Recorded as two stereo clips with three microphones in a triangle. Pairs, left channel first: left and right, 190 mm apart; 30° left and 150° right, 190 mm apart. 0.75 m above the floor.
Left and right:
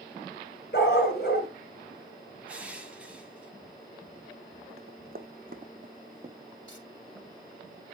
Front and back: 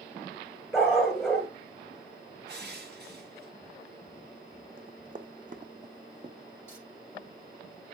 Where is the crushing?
175° right, 1.6 m.